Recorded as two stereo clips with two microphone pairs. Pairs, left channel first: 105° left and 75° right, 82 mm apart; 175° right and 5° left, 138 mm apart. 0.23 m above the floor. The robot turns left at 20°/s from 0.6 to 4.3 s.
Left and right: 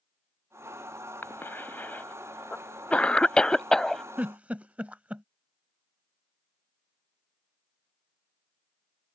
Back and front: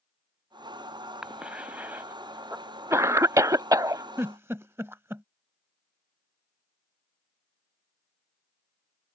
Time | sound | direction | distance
1.2 | a cough | 80° left | ?
4.2 | a giggle | 25° right | ?